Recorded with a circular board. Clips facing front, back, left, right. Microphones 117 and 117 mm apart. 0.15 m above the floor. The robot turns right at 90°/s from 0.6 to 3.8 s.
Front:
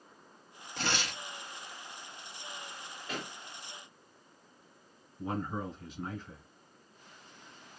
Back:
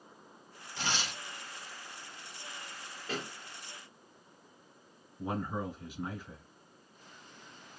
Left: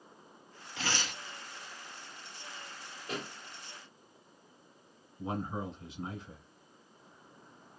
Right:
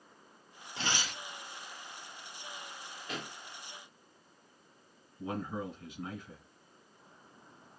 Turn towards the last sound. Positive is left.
turn(degrees=105)